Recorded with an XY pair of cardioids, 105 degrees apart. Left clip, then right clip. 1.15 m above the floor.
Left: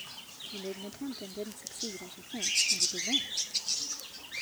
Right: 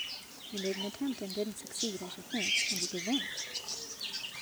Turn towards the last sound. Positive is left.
turn(degrees=-25)